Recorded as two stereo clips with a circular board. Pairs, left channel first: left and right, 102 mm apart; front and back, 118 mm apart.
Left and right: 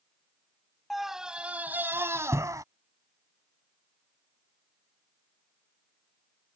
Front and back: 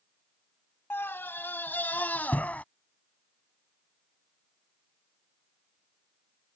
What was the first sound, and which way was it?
A scream, straight ahead.